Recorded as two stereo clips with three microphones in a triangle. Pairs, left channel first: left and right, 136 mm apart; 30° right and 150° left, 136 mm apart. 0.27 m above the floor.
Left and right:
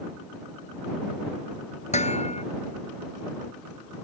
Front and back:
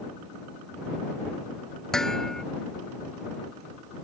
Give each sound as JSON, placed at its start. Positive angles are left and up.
{"t": 1.9, "sound": "dishes clattering", "azimuth_deg": 55}